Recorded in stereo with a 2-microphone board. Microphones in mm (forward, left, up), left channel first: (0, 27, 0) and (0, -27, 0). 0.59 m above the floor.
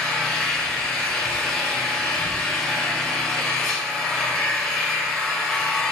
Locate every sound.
0.0 s an engine running: 10° left (ahead or behind), 3 m